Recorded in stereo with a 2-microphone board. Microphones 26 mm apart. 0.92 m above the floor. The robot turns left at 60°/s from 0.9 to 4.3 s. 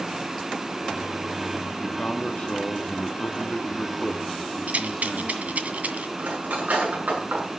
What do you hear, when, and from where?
1.8 s a man speaking: 160° left, 1.7 m; by 5.7 s 10° left, 1.7 m
4.7 s a rattle: 65° right (ahead or behind), 2.0 m
6.2 s cutlery clinking: 80° right, 7 m